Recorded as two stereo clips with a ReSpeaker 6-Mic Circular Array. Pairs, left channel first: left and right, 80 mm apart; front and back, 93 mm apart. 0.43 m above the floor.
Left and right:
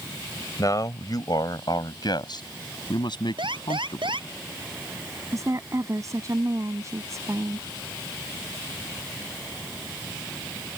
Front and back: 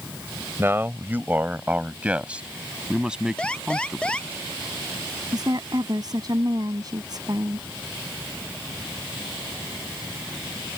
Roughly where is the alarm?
Right.